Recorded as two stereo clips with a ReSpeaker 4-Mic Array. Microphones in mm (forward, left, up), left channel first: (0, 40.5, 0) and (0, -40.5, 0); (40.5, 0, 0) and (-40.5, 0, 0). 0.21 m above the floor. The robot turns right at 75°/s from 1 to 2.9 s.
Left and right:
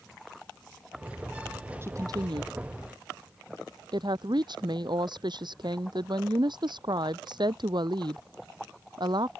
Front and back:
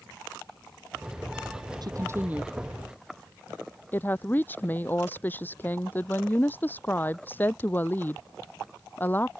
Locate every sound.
1.8 s a woman speaking: 150° right; by 9.3 s 65° right